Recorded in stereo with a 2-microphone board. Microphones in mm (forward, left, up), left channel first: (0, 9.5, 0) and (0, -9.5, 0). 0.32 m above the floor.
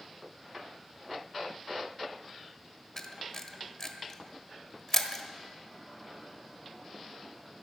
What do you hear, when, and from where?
3.0 s a camera shutter: 20° left (ahead or behind), 1.3 m